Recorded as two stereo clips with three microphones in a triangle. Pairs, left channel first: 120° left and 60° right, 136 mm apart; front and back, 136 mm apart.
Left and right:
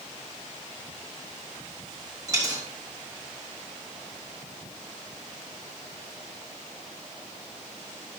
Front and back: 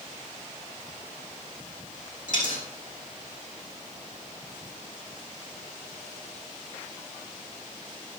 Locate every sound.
2.3 s a dropped coin: straight ahead, 3.5 m